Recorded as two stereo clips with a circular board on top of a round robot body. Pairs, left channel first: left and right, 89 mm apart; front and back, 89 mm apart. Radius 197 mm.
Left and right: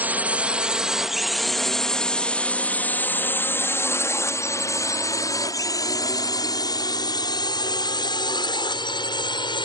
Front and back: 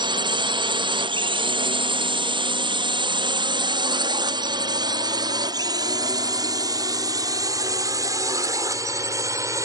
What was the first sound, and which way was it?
A drone, 160° right.